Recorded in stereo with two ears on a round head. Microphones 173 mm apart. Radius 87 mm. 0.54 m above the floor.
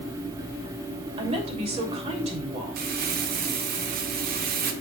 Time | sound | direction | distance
1.2 | a woman speaking | 35° right (ahead or behind) | 2.5 m
2.8 | crumpling | 50° right (ahead or behind) | 1.0 m